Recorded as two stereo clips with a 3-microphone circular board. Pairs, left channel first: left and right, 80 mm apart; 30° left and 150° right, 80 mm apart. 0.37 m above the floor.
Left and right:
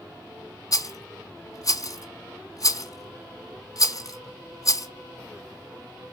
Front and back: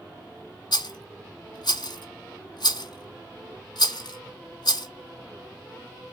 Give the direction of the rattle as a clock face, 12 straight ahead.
10 o'clock.